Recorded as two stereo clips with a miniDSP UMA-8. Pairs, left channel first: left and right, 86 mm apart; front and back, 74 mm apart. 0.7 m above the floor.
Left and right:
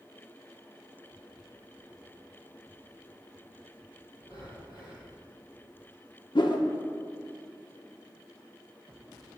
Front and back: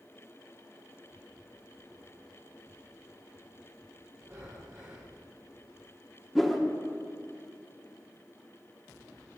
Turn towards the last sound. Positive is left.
turn(degrees=90)